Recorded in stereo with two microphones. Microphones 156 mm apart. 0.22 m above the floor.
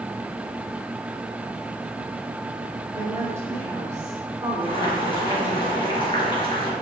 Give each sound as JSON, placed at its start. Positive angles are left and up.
{"t": 3.0, "sound": "a woman speaking", "side_deg": -15, "distance_m": 2.5}
{"t": 4.6, "sound": "boiling", "side_deg": 30, "distance_m": 4.0}